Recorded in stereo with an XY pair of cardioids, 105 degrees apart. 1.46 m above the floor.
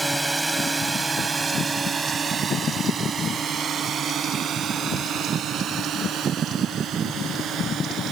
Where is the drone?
10° right; by 8.1 s 75° right.